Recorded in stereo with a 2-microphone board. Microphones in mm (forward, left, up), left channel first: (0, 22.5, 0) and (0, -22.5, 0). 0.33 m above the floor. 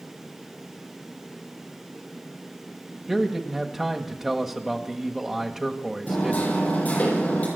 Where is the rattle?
I don't hear a rattle.